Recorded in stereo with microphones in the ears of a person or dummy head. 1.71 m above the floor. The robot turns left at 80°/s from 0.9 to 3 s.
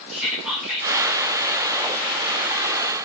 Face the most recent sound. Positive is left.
turn(degrees=-175)